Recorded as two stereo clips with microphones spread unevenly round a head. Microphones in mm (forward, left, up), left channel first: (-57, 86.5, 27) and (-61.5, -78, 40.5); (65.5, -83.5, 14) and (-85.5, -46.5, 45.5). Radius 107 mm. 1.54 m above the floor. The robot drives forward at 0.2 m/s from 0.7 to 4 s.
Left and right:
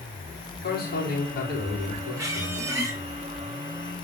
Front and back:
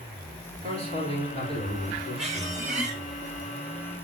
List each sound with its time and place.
0.6 s a man speaking: 115° left, 3.5 m; by 2.6 s 120° left, 3.5 m
2.2 s a squeak: 160° right, 1.6 m